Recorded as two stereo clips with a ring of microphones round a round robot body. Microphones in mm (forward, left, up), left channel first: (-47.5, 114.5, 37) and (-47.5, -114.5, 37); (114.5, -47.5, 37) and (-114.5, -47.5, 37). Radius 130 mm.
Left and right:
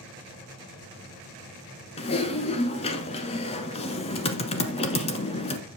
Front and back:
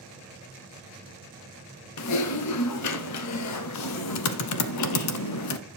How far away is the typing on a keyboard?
About 1.0 m.